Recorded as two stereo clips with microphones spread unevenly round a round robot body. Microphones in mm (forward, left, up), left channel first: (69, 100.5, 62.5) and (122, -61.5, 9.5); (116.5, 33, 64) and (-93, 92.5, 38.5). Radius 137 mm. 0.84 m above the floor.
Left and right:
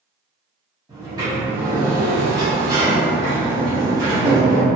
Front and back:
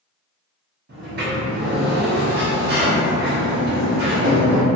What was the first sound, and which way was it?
A sliding door, 145° right.